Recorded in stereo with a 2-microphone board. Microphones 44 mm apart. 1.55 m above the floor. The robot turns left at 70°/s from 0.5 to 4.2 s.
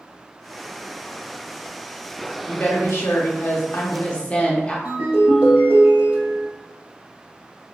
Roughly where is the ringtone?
Right.